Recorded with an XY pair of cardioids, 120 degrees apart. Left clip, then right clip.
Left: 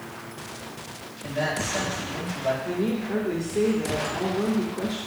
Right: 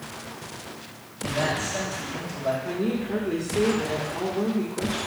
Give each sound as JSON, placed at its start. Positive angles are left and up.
{"t": 1.2, "sound": "a man speaking", "azimuth_deg": -5, "distance_m": 4.0}
{"t": 2.6, "sound": "a woman speaking", "azimuth_deg": -5, "distance_m": 2.0}